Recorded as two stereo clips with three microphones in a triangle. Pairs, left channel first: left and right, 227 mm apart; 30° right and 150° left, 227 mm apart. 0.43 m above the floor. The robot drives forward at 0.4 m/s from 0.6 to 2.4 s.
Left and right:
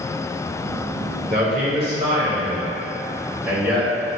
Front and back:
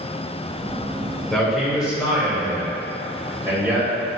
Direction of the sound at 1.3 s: 115° right.